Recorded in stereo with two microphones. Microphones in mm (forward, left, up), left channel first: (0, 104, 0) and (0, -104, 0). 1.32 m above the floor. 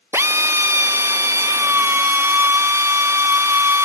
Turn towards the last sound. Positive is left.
turn(degrees=-10)  # may be behind; listen again after turning